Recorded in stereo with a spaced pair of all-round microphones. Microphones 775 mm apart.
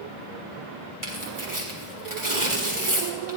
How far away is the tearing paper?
About 1.7 m.